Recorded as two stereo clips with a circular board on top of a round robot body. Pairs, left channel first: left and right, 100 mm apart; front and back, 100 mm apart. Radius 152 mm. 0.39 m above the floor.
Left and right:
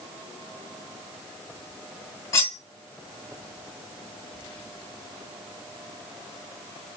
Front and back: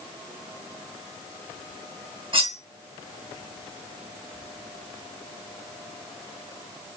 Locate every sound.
2.3 s cutlery clinking: 145° left, 1.3 m